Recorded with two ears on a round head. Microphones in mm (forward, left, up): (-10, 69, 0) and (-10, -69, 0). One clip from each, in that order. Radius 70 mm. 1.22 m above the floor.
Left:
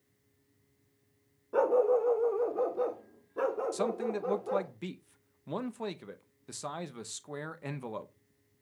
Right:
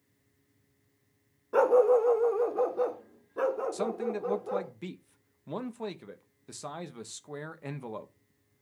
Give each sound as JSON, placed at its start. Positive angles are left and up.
{"t": 1.5, "sound": "a dog barking", "side_deg": -45, "distance_m": 0.8}
{"t": 3.7, "sound": "a man speaking", "side_deg": 10, "distance_m": 0.9}